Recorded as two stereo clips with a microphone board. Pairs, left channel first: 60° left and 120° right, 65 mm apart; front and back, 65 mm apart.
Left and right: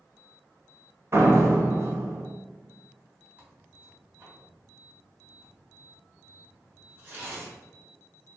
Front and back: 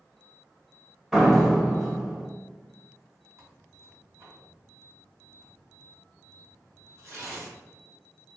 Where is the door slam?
100° right, 1.0 m.